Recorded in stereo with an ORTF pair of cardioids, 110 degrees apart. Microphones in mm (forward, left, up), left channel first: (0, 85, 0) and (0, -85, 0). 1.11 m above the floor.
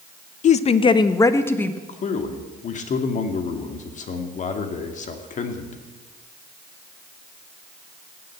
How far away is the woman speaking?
About 0.9 m.